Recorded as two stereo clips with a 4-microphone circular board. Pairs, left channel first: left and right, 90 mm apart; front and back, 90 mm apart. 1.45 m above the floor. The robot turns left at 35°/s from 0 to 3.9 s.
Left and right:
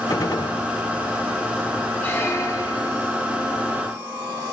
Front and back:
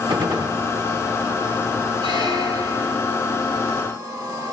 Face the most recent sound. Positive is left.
turn(degrees=90)